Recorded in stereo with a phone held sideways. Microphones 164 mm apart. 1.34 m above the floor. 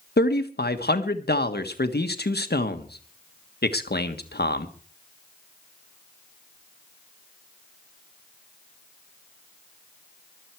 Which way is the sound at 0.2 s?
80° left.